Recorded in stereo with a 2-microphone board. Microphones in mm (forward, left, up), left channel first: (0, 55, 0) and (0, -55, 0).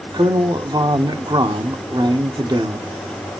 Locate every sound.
0.1 s a man speaking: 45° right (ahead or behind), 1.1 m